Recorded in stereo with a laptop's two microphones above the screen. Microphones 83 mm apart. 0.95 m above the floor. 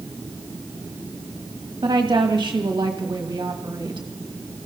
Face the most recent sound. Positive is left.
turn(degrees=-60)  # may be behind; listen again after turning